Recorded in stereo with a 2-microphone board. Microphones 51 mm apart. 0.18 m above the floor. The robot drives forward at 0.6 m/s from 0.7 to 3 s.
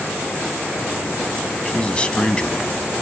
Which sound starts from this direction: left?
A man speaking, at 1.6 s.